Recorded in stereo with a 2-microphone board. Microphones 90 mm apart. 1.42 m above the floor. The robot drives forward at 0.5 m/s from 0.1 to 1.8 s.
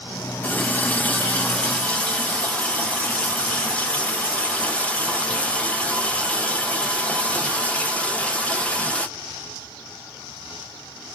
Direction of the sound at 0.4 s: 15° left (ahead or behind).